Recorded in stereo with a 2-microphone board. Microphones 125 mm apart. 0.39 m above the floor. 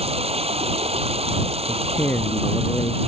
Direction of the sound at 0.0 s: 55° right (ahead or behind).